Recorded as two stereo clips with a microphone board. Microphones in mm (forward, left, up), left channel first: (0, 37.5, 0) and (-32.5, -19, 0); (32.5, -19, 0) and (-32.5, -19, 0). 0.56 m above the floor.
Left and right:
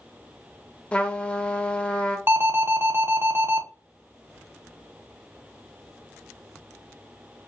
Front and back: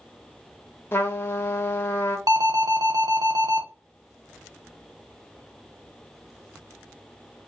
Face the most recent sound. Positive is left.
turn(degrees=-170)